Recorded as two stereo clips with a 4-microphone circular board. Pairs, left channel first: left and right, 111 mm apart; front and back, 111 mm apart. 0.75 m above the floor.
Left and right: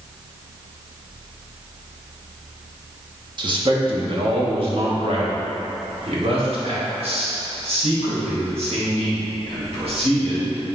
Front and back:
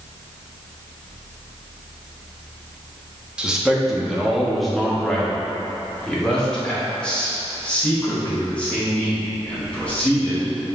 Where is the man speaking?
100° right, 1.2 m; by 10.5 s 75° right, 4.5 m.